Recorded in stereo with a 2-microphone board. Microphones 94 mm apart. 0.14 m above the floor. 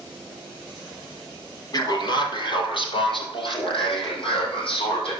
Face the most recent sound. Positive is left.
turn(degrees=75)  # may be behind; listen again after turning